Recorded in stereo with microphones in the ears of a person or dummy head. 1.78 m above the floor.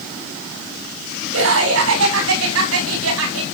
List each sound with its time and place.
1.3 s laughter: 90° right, 8 m; by 3.4 s 85° right, 6.5 m